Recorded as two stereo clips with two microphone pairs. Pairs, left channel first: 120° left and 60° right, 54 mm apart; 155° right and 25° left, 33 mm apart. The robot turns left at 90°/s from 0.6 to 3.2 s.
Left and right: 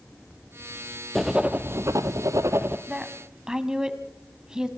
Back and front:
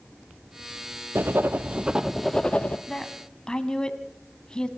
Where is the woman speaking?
85° right, 1.1 m; by 4.7 s 115° right, 1.1 m.